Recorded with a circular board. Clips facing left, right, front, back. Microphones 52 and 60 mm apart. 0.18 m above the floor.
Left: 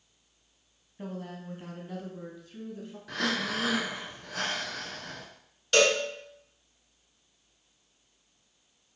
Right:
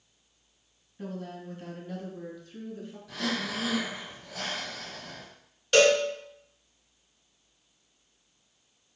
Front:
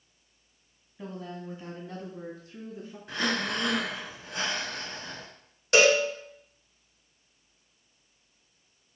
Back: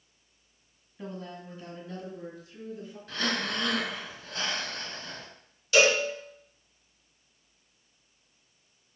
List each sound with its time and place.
1.0 s a woman speaking: 80° left, 1.0 m; by 3.0 s 5° left, 1.6 m
3.1 s breathing: 70° left, 0.6 m
5.7 s a cowbell: 10° right, 2.5 m